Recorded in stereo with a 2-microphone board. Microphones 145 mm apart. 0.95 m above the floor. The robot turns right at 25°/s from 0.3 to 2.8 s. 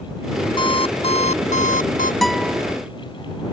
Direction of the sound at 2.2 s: Centre (ahead or behind).